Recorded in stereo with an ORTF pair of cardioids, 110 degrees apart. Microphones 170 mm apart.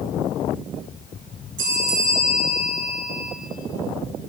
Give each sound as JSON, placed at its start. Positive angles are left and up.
{"t": 1.6, "sound": "a bell", "azimuth_deg": -55, "distance_m": 0.9}